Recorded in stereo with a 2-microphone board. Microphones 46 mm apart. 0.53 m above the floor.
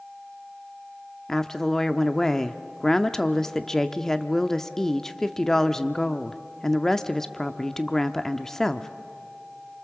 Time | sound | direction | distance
1.3 | a woman speaking | 10° left (ahead or behind) | 0.7 m